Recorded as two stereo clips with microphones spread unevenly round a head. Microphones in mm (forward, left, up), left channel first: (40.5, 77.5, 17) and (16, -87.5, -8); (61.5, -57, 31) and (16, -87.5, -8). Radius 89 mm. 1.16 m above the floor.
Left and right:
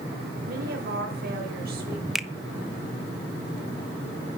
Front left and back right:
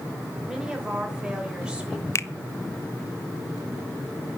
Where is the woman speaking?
70° right, 5 m; by 2.0 s 75° right, 6 m.